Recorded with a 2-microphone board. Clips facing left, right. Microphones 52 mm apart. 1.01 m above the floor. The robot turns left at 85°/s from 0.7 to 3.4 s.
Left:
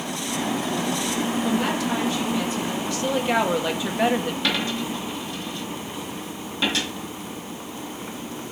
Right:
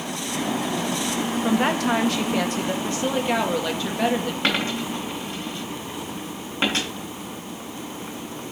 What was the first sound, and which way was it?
A woman speaking, 25° right.